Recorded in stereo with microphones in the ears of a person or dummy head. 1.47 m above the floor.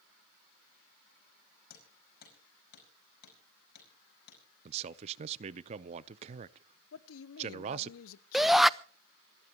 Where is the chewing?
I don't hear chewing.